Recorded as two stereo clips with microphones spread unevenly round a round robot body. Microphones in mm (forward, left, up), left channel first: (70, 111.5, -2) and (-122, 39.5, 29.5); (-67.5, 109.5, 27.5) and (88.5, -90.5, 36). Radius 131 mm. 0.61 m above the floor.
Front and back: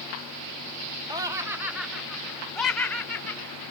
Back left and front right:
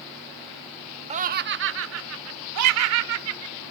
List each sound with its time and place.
1.1 s laughter: 90° right; by 3.5 s 60° right